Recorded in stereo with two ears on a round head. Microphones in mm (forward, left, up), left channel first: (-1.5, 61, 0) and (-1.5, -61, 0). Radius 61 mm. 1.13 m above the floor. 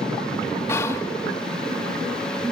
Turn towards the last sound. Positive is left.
turn(degrees=20)  # may be behind; listen again after turning